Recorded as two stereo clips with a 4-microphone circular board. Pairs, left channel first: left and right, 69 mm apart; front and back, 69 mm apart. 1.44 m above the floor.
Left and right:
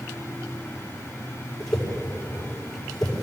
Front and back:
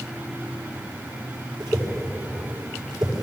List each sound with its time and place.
1.6 s a whoosh: 170° left, 5.5 m